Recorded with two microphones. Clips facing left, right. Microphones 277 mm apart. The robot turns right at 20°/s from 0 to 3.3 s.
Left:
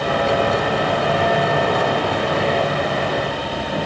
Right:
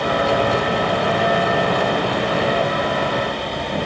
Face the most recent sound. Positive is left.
No sound to turn to.